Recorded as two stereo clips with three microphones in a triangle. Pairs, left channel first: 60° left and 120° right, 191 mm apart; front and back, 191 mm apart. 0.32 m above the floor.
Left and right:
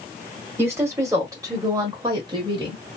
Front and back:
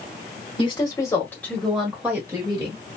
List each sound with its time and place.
0.6 s a woman speaking: 50° right, 1.7 m; by 2.8 s 160° right, 1.5 m